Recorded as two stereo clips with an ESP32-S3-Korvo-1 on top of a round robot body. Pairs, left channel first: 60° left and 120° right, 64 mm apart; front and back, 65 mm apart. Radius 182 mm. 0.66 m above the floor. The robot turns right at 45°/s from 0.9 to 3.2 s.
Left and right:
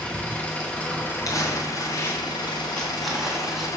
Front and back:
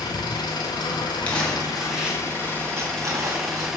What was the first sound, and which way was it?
An engine running, 10° right.